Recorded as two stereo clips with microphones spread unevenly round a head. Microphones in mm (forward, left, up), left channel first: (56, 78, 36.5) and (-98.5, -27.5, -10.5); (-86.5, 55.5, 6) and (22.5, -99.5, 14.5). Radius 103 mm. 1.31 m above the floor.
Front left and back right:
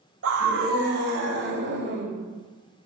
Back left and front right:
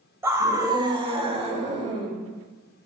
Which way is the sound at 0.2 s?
130° right.